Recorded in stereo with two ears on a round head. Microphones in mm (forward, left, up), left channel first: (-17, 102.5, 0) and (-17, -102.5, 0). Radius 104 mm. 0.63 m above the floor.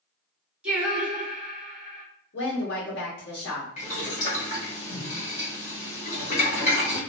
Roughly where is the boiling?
Left.